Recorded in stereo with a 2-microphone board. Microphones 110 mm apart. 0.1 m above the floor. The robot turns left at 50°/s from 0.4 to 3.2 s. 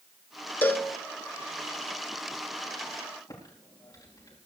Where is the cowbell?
15° left (ahead or behind), 0.7 m; by 0.9 s 20° left (ahead or behind), 0.7 m.